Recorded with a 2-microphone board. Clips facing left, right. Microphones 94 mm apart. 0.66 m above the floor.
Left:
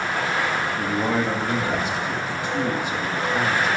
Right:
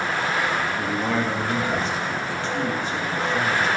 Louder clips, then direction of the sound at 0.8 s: Left 1 dB; 15° left (ahead or behind).